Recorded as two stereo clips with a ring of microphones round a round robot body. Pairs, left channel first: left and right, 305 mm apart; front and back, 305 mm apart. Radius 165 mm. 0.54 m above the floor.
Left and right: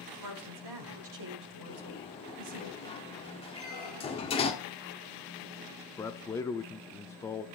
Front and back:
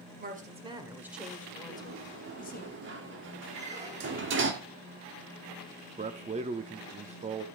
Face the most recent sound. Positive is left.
turn(degrees=155)